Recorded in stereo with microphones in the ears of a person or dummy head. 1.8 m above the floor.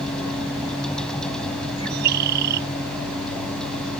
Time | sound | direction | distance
0.0 | a vehicle | 5° left (ahead or behind) | ?
1.8 | a bird | 55° right (ahead or behind) | ?